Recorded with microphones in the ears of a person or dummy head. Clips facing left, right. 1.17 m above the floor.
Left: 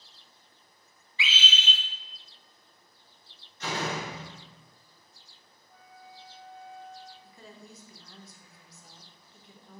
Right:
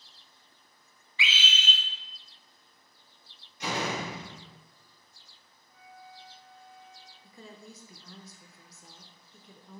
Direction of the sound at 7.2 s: 80° right.